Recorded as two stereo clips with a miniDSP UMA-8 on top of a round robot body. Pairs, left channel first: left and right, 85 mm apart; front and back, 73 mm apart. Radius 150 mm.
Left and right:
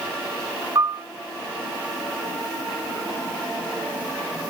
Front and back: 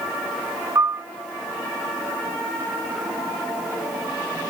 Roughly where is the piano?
Behind right.